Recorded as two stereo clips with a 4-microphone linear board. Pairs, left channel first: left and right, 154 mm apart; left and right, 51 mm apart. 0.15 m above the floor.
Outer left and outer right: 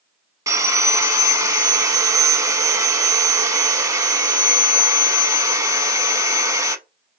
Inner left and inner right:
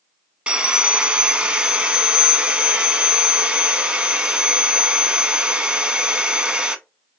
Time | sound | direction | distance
0.5 | sawing | 20° right (ahead or behind) | 0.6 m